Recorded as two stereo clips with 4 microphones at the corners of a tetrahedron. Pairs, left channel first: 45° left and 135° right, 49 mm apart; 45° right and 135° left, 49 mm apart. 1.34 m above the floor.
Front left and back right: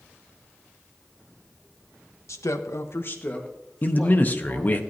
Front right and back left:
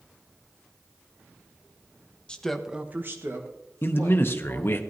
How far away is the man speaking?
About 0.7 m.